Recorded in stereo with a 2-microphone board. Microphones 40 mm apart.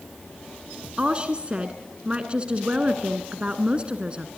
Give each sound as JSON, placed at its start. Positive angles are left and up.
{"t": 1.0, "sound": "a woman speaking", "side_deg": -30, "distance_m": 1.2}